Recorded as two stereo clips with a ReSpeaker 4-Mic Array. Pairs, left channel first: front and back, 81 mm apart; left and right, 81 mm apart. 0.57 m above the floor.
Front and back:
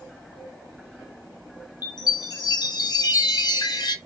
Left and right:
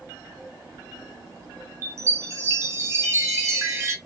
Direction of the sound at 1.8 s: 35° right.